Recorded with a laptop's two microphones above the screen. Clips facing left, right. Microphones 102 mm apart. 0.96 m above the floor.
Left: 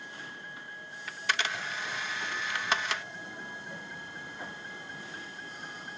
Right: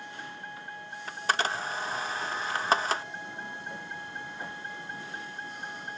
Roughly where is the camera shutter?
Right.